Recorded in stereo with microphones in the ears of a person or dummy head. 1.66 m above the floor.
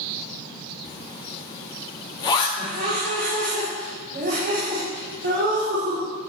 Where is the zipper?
30° left (ahead or behind), 1.6 m.